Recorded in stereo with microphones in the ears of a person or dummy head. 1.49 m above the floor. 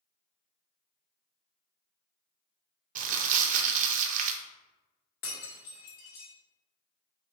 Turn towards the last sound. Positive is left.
turn(degrees=50)  # may be behind; listen again after turning